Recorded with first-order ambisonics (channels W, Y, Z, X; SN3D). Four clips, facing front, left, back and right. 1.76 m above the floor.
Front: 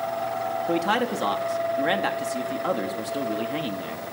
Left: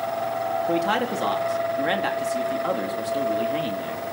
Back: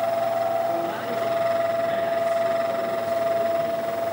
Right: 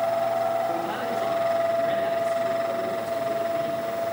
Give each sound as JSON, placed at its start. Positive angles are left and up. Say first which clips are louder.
{"t": 0.7, "sound": "a man speaking", "louder": "left 4 dB, front 2 dB", "azimuth_deg": 35, "distance_m": 4.0}